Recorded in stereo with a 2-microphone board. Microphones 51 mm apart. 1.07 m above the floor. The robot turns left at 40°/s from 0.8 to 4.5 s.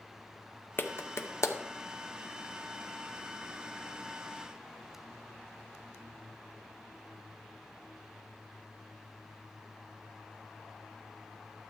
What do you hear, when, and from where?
0.8 s a clap: 40° left (ahead or behind), 0.8 m; by 1.6 s 70° left (ahead or behind), 0.8 m